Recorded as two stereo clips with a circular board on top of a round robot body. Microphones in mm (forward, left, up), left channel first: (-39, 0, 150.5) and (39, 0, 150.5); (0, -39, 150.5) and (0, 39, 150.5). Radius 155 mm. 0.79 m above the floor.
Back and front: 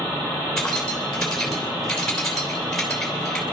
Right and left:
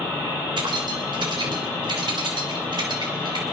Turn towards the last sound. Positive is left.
turn(degrees=95)